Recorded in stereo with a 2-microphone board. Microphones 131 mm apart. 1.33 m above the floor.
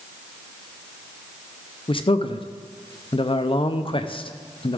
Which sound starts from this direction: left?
A man speaking, at 1.9 s.